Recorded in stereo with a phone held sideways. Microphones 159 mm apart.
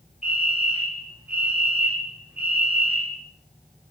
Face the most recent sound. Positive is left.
turn(degrees=-5)  # may be behind; listen again after turning